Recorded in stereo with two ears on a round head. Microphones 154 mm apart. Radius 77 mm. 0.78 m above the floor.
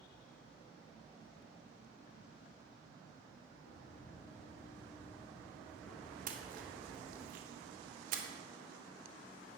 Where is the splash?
50° right (ahead or behind), 1.7 m.